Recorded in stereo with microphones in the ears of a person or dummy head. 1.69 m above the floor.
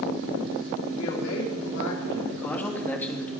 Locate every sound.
0.9 s a woman speaking: 75° left (ahead or behind), 4.5 m
2.3 s a man speaking: 15° left (ahead or behind), 2.5 m